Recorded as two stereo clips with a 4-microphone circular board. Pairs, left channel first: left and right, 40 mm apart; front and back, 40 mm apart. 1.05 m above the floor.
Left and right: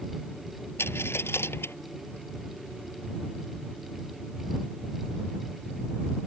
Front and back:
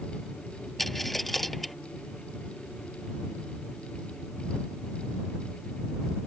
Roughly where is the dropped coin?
Left.